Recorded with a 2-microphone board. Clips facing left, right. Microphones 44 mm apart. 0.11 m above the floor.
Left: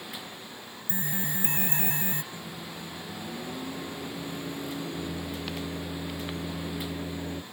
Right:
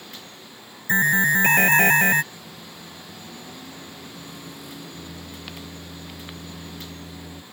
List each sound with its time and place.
0.9 s an alarm: 70° right (ahead or behind)
2.3 s a microwave: 35° left (ahead or behind)